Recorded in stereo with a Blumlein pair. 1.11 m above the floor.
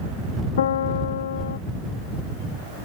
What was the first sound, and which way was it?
A piano, 60° left.